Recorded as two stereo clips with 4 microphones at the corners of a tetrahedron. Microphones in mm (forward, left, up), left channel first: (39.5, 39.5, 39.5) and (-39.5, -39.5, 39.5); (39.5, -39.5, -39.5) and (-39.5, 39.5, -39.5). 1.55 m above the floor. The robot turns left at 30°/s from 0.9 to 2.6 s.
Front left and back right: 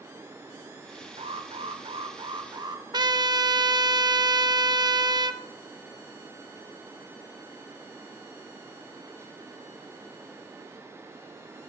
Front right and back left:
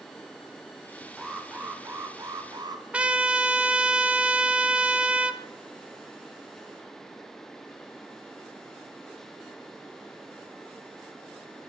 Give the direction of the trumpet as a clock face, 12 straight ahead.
5 o'clock.